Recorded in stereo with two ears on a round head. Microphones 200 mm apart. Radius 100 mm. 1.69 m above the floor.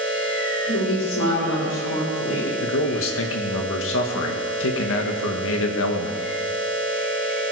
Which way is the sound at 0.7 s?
60° left (ahead or behind).